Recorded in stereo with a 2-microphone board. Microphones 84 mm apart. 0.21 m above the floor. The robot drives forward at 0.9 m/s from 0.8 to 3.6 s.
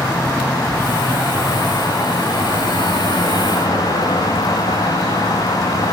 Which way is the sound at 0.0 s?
30° left (ahead or behind).